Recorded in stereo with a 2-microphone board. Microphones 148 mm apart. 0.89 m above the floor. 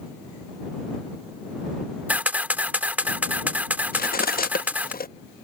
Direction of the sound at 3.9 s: 85° left.